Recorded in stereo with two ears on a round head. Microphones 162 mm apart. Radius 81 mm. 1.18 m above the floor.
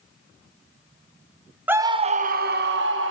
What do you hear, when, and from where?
1.7 s a scream: 10° right (ahead or behind), 0.7 m; by 3.1 s 75° right (ahead or behind), 1.3 m